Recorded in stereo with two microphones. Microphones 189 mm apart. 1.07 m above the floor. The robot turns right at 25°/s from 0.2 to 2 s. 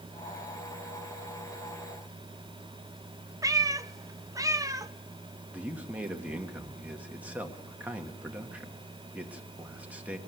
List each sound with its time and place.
3.4 s a cat meowing: 20° right (ahead or behind), 0.5 m
5.5 s a man speaking: 10° right (ahead or behind), 1.6 m